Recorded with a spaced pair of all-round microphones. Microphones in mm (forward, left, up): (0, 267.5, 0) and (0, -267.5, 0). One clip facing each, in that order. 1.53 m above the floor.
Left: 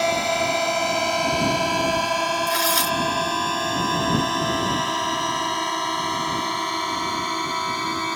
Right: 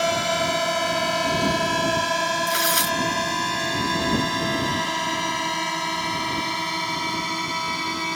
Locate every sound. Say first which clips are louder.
0.0 s a drone: left 1 dB; 35° right (ahead or behind); by 8.2 s 45° right (ahead or behind)
2.5 s tearing paper: left 1 dB; 15° left (ahead or behind)